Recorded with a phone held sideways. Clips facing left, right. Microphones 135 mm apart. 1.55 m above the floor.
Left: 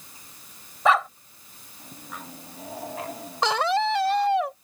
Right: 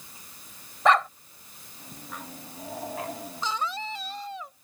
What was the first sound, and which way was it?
A dog barking, 5° left (ahead or behind).